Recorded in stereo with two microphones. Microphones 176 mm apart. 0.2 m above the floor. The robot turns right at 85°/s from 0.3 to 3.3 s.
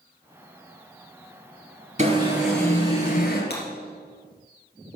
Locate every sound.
2.0 s an alarm: 40° right, 3 m; by 3.4 s 70° left, 3 m
3.5 s breaking glass: 65° left (ahead or behind), 3 m